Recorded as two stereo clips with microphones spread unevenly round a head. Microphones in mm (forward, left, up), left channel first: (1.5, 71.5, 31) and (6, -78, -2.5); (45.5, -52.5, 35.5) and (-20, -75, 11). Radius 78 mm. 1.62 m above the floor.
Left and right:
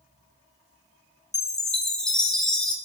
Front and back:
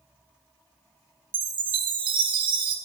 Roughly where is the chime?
Behind.